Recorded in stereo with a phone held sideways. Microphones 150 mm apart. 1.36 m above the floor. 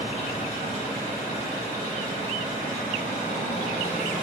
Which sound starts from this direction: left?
An engine running, at 0.0 s.